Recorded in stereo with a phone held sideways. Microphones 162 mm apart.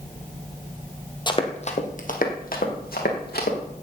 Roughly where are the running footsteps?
Left.